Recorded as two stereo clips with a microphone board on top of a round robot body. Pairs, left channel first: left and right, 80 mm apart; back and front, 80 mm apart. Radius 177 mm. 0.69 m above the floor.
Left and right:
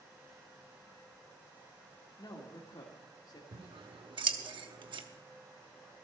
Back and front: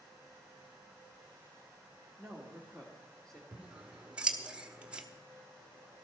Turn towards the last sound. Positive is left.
turn(degrees=-80)